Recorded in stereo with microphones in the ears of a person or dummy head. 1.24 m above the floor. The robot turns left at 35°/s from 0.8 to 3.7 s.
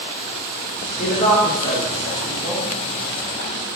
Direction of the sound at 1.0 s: 50° left (ahead or behind).